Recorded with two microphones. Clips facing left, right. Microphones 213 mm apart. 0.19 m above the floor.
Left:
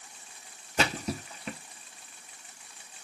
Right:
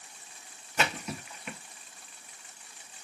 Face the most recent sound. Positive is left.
turn(degrees=35)  # may be behind; listen again after turning